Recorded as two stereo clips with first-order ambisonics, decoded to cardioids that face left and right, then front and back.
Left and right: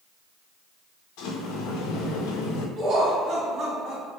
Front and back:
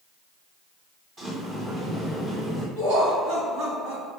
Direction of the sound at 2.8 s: 145° right.